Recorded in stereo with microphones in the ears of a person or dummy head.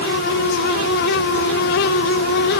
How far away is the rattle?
No rattle in this recording.